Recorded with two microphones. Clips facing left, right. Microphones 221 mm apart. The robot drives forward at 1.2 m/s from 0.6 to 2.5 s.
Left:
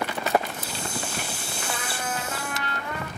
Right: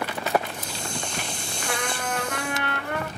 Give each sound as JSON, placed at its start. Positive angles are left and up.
{"t": 1.6, "sound": "a trumpet", "side_deg": -65, "distance_m": 1.7}